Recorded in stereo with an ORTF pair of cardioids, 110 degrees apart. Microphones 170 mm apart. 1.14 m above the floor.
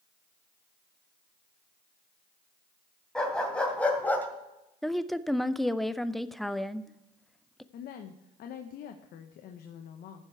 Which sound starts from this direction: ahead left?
A woman speaking, at 7.7 s.